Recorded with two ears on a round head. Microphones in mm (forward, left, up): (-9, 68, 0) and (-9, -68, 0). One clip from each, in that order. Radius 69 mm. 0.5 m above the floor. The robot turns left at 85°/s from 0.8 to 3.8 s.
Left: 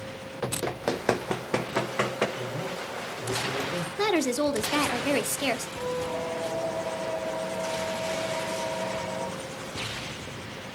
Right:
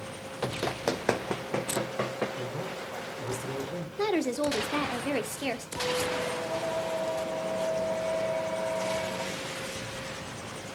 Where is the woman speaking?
25° left (ahead or behind), 0.9 m.